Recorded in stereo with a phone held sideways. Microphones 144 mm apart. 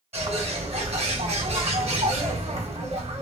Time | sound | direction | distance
0.1 | a bird | 50° right (ahead or behind) | 1.3 m